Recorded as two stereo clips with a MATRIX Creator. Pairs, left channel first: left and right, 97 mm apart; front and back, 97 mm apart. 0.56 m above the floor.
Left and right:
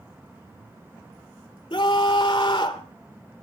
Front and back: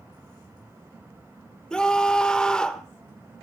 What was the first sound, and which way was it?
A scream, 80° left.